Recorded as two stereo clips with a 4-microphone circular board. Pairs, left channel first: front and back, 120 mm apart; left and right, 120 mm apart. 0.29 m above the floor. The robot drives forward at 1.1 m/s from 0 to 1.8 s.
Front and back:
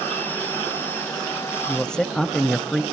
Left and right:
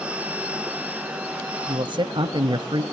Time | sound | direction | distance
1.7 | a man speaking | 70° right | 1.4 m